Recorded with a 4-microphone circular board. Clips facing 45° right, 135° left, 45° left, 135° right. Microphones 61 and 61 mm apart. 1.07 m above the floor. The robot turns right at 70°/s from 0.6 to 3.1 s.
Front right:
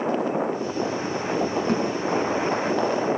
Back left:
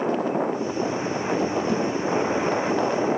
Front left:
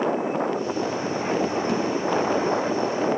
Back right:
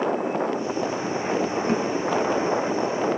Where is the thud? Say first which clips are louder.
Front right 1 dB, back right 1 dB; 85° right, 6.5 m; by 1.8 s 75° right, 6.5 m.